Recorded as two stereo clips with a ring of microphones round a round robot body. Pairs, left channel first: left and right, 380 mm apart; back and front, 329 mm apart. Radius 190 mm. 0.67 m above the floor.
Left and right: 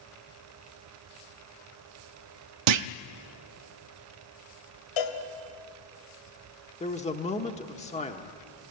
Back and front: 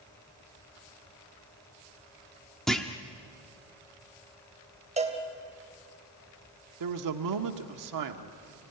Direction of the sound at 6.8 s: 20° left.